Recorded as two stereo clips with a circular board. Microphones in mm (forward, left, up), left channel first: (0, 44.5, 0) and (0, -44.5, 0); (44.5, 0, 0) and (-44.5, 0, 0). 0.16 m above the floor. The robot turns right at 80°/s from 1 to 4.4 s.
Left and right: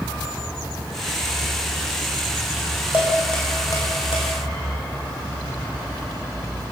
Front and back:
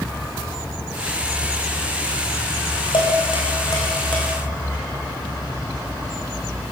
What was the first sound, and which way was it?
Dishes clattering, 20° right.